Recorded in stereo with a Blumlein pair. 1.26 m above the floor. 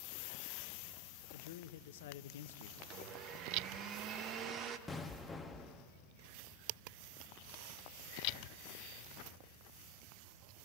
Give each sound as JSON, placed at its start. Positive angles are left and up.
{"t": 1.3, "sound": "a man speaking", "azimuth_deg": 55, "distance_m": 0.8}
{"t": 2.8, "sound": "a blender", "azimuth_deg": -30, "distance_m": 1.1}
{"t": 4.9, "sound": "an explosion", "azimuth_deg": 10, "distance_m": 1.2}